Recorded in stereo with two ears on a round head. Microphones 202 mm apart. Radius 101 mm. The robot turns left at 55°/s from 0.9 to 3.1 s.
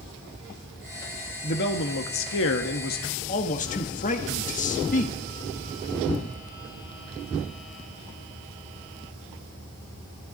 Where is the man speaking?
130° left, 1.3 m; by 5.2 s 40° left, 1.3 m.